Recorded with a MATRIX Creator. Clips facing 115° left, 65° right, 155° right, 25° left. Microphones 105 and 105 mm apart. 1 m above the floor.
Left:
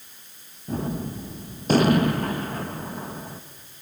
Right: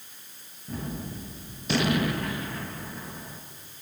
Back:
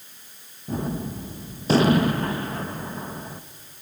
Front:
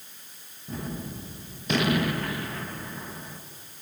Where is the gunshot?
150° left, 1.3 m.